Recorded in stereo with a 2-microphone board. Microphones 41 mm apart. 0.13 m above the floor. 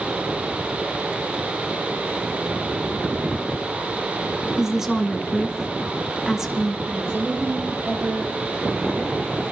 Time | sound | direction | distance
4.6 | a woman speaking | 10° right (ahead or behind) | 1.2 m
6.8 | a woman speaking | 70° right (ahead or behind) | 5 m